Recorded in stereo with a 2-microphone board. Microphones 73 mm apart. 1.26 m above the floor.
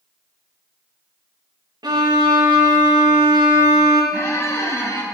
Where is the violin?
70° right (ahead or behind), 1.0 m.